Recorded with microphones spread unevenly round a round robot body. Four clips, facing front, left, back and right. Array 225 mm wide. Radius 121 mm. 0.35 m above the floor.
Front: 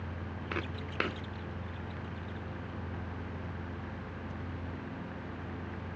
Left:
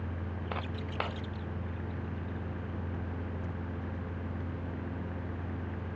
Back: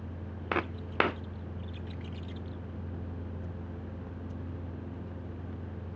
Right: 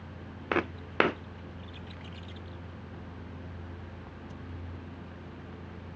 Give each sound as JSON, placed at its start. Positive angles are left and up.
{"t": 0.5, "sound": "footsteps", "azimuth_deg": -120}